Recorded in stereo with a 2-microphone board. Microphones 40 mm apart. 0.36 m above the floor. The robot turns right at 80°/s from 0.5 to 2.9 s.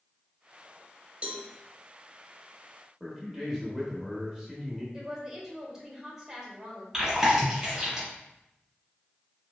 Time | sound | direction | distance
1.2 | a cowbell | 30° right (ahead or behind) | 0.6 m
3.0 | a man speaking | 5° right (ahead or behind) | 1.1 m
4.9 | a woman speaking | 10° right (ahead or behind) | 1.4 m
6.9 | chewing | 10° right (ahead or behind) | 1.8 m